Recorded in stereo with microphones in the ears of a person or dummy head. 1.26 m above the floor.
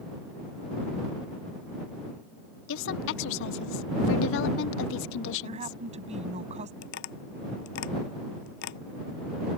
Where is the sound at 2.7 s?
80° left.